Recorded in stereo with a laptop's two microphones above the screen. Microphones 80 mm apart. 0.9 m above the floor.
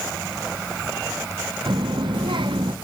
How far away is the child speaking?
About 0.7 m.